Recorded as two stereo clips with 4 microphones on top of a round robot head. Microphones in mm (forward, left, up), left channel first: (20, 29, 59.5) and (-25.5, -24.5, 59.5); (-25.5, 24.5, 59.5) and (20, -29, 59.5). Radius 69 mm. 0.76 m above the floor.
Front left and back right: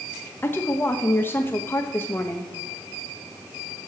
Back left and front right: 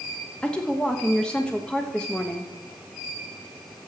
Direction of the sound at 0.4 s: 65° left.